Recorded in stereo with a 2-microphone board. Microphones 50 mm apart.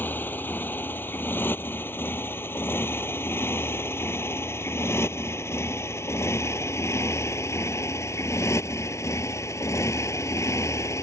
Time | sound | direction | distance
0.0 | a motorcycle | 40° left (ahead or behind) | ?